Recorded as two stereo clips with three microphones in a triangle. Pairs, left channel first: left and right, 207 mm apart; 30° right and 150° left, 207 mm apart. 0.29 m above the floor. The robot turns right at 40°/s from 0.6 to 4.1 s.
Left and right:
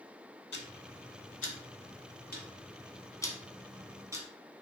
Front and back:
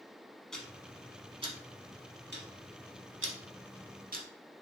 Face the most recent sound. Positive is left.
turn(degrees=-165)